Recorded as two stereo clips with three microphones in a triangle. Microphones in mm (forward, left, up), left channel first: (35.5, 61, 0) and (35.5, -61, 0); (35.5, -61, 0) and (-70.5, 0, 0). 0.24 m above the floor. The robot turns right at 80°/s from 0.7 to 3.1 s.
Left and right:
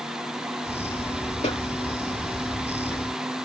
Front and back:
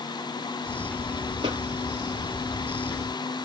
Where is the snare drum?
115° left, 1.4 m; by 1.6 s 125° left, 1.4 m.